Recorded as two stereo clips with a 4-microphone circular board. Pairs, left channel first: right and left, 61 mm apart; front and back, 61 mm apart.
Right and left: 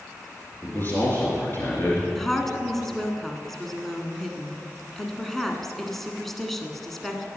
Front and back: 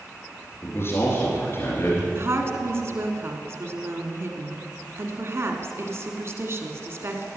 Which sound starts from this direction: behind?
A woman speaking, at 2.1 s.